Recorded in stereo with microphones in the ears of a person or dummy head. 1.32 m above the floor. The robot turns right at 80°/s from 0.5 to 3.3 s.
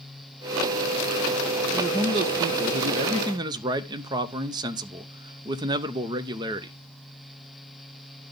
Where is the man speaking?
165° right, 0.6 m; by 6.7 s 40° right, 0.6 m.